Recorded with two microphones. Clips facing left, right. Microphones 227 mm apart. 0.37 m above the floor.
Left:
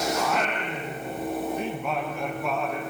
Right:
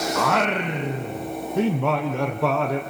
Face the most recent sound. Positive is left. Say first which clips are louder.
# right 4 dB
turn(degrees=-80)